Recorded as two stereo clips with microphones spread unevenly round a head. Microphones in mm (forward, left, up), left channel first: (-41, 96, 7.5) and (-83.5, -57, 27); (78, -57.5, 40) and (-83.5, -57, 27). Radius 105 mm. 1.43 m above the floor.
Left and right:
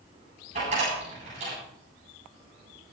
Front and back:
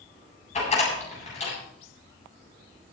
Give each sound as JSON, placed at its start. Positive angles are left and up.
{"t": 0.6, "sound": "a door slam", "azimuth_deg": -45, "distance_m": 9.0}